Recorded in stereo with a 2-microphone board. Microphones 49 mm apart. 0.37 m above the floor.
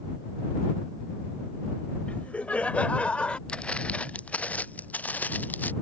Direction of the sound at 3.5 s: 20° left (ahead or behind).